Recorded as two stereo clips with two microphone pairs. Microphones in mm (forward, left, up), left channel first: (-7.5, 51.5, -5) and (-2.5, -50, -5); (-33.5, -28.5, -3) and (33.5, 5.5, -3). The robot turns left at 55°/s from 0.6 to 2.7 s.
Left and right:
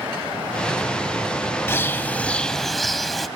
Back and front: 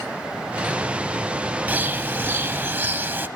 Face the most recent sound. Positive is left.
turn(degrees=5)